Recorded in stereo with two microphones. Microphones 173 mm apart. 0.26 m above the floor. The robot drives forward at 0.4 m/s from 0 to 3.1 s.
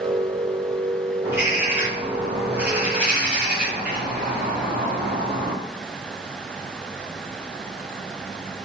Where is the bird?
15° right (ahead or behind), 1.3 m; by 5.5 s 10° right (ahead or behind), 1.7 m.